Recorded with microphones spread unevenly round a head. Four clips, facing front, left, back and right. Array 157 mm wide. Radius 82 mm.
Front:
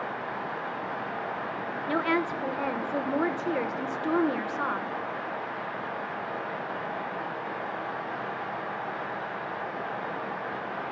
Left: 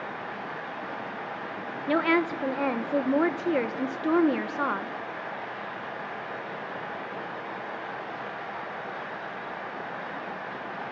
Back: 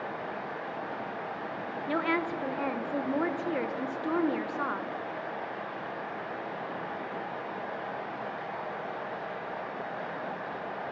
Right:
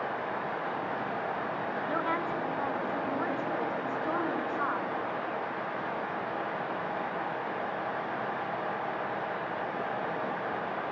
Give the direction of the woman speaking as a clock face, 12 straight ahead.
9 o'clock.